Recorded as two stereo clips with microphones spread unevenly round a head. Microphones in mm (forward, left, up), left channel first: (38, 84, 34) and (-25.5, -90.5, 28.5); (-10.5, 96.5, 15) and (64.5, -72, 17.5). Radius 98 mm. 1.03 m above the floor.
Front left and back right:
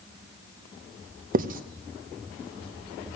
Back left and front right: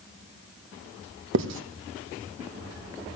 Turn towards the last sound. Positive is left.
turn(degrees=-70)